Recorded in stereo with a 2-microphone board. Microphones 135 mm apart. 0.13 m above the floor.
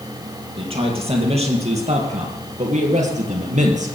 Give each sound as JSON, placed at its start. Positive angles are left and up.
{"t": 0.6, "sound": "a man speaking", "side_deg": -45, "distance_m": 4.0}